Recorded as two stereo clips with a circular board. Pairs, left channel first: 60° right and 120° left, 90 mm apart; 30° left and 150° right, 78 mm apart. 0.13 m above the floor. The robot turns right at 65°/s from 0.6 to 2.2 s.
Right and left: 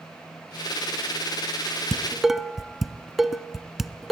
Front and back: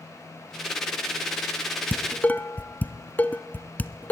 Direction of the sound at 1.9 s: 15° left.